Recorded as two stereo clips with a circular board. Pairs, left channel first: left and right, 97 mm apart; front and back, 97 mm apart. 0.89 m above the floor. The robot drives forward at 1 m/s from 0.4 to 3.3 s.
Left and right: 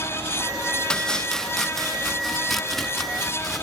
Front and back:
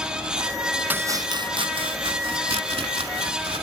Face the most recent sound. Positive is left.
turn(degrees=180)